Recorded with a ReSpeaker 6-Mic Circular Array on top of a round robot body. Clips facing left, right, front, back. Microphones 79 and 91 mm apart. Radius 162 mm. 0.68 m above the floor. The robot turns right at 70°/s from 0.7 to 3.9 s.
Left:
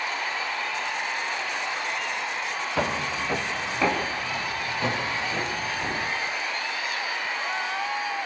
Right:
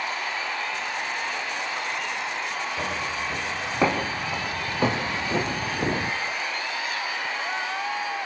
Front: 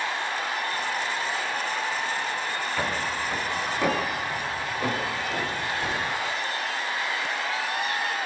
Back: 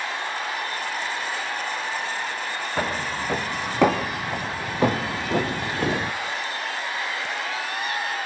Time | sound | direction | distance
2.8 | footsteps | 120° left | 4 m